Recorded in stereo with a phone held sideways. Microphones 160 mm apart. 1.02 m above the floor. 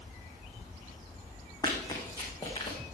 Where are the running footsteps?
25° left (ahead or behind), 3 m.